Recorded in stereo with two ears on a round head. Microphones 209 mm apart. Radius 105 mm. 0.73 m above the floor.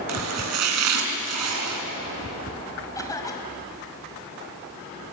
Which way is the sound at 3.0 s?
15° left (ahead or behind).